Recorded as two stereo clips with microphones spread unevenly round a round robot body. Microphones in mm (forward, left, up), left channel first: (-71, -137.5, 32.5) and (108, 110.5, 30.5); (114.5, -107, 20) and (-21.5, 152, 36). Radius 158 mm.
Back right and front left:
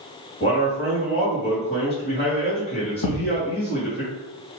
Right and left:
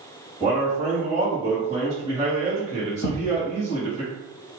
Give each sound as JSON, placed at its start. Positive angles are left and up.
{"t": 0.4, "sound": "a man speaking", "azimuth_deg": -175, "distance_m": 1.9}
{"t": 3.0, "sound": "a thud", "azimuth_deg": -115, "distance_m": 0.8}